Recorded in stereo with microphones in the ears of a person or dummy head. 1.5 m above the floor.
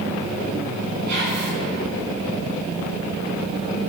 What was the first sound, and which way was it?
Whispering, 60° right (ahead or behind).